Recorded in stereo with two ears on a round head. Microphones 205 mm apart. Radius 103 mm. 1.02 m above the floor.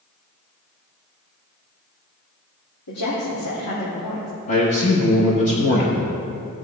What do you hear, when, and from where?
2.9 s a woman speaking: 75° left (ahead or behind), 3 m
4.5 s a man speaking: 30° left (ahead or behind), 1.3 m